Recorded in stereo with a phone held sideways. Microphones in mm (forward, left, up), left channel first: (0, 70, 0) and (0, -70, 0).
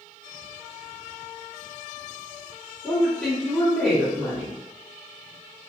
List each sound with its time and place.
2.8 s a woman speaking: centre (ahead or behind), 1.7 m